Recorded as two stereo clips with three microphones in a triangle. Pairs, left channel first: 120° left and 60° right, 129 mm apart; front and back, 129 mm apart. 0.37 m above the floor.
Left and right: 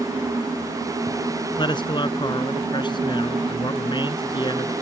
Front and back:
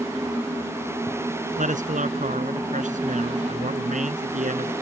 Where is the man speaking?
175° left.